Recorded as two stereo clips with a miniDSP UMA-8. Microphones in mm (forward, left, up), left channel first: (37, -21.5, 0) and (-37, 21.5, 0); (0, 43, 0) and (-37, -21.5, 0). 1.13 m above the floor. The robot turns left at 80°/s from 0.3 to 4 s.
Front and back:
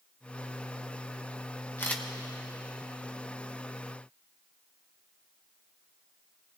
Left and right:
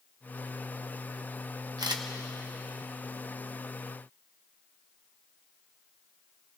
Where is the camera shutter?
90° right, 1.1 m; by 2.0 s 110° right, 1.1 m.